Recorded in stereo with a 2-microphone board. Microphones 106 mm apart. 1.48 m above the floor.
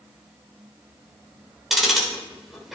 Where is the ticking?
5° right (ahead or behind), 3.5 m.